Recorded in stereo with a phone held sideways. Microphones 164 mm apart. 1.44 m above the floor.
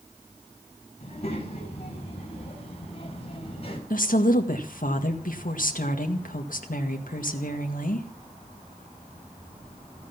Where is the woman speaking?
65° left (ahead or behind), 1.9 m.